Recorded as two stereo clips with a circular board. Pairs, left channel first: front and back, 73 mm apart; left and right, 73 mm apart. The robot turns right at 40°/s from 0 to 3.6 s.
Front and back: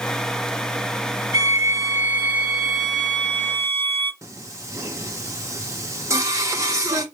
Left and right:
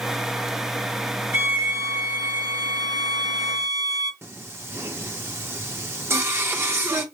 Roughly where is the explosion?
No explosion in this recording.